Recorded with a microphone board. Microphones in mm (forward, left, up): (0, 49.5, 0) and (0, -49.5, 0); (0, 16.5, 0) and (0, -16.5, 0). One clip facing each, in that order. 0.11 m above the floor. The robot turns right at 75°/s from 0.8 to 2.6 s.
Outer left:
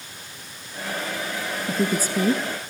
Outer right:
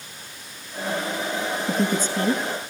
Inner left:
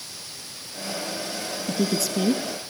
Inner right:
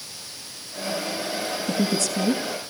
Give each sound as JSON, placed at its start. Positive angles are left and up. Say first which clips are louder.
{"t": 1.7, "sound": "a woman speaking", "louder": "outer left 1 dB, even", "azimuth_deg": -10, "distance_m": 1.3}